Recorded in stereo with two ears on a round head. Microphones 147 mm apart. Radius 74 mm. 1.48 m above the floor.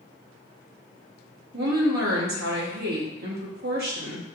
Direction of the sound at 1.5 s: 65° right (ahead or behind).